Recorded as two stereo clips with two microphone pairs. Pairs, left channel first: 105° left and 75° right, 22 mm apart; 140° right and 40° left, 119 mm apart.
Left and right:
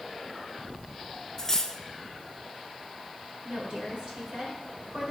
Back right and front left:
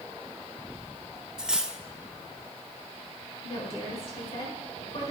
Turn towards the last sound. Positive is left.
turn(degrees=-105)